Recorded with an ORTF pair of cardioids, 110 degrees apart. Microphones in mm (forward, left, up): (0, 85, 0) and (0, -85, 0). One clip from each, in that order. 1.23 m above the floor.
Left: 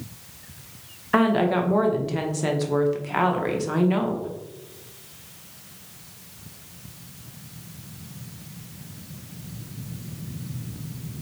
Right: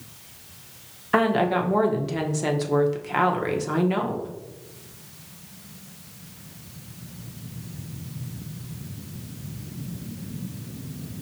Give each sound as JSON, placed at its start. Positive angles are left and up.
{"t": 1.1, "sound": "a woman speaking", "azimuth_deg": -5, "distance_m": 0.6}